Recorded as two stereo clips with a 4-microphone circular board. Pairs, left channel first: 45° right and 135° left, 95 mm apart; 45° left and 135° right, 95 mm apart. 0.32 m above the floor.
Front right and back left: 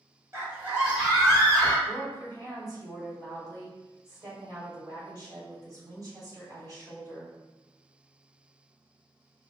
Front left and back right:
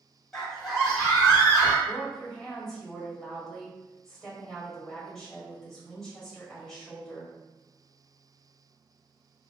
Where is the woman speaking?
130° left, 1.5 m.